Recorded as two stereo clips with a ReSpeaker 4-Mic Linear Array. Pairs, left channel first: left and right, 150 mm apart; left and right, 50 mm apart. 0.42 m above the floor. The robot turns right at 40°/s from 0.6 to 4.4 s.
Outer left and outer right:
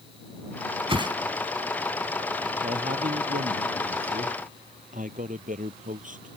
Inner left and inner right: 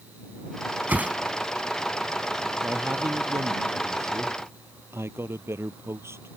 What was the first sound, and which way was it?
A whoosh, 35° right (ahead or behind).